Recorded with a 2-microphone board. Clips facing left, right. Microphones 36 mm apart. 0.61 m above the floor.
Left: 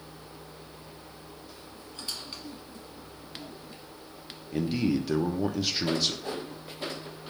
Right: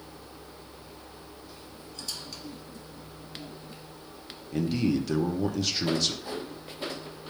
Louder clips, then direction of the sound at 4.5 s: Right 1 dB; 5° left (ahead or behind).